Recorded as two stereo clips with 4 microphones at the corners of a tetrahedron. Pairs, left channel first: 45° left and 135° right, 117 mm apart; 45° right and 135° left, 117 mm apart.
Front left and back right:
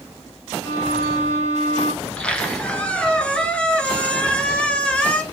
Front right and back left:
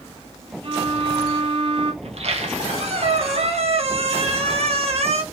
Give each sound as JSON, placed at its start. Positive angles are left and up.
{"t": 0.6, "sound": "a violin", "azimuth_deg": 105, "distance_m": 1.0}
{"t": 2.0, "sound": "a squeak", "azimuth_deg": 125, "distance_m": 0.7}